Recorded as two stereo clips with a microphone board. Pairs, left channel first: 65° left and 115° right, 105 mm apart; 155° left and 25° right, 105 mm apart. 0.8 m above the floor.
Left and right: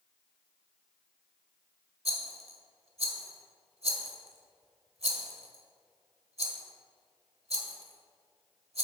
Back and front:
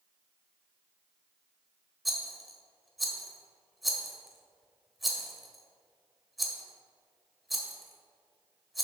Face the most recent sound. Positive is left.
turn(degrees=-110)